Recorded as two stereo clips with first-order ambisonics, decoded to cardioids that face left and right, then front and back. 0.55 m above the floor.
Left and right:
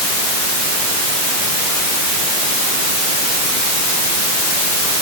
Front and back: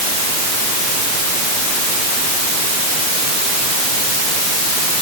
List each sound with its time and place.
Only background noise.